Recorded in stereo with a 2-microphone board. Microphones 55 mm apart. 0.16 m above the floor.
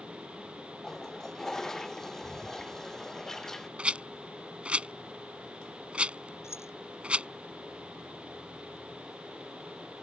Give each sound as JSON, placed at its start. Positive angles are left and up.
{"t": 0.8, "sound": "a toilet flushing", "side_deg": 10}
{"t": 3.8, "sound": "a rattle", "side_deg": -20}
{"t": 6.4, "sound": "keys jangling", "side_deg": 55}